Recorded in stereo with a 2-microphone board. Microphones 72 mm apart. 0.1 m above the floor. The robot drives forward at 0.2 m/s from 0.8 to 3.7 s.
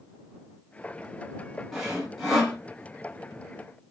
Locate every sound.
1.7 s sawing: 5° right (ahead or behind), 1.4 m